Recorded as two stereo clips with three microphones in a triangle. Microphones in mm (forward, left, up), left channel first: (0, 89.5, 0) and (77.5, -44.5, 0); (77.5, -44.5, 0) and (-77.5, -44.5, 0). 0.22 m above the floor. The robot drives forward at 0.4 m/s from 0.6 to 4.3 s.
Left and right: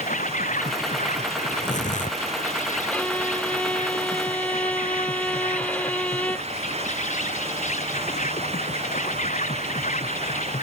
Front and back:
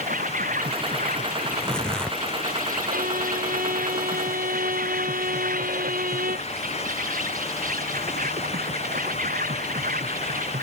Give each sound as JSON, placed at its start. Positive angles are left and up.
{"t": 0.0, "sound": "an insect", "azimuth_deg": 155}
{"t": 1.5, "sound": "tearing paper", "azimuth_deg": 85}
{"t": 2.9, "sound": "a violin", "azimuth_deg": -160}